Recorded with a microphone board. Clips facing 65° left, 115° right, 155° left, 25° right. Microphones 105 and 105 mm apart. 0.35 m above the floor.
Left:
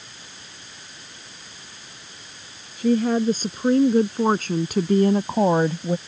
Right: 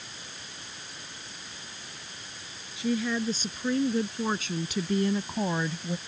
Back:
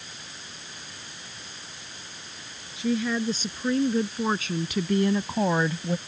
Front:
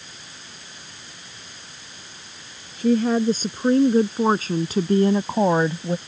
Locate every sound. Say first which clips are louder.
2.8 s a woman speaking: left 9 dB, front 7 dB; 25° left; by 6.0 s 45° left